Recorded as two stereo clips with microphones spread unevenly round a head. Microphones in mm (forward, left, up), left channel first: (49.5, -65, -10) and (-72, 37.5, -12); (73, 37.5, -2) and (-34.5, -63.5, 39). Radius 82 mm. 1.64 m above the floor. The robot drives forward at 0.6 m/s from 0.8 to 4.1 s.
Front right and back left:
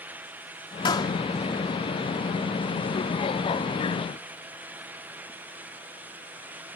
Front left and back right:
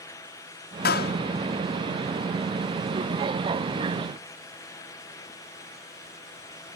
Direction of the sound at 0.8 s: 25° left.